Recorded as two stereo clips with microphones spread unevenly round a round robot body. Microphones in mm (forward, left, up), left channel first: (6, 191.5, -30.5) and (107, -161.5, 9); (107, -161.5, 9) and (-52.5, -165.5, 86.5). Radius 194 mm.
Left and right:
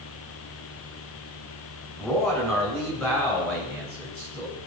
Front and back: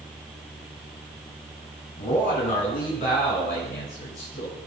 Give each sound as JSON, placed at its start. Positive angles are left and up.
{"t": 2.0, "sound": "a man speaking", "azimuth_deg": 20, "distance_m": 4.5}